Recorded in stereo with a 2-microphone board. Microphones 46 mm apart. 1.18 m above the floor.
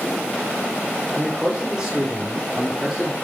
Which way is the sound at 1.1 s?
20° right (ahead or behind).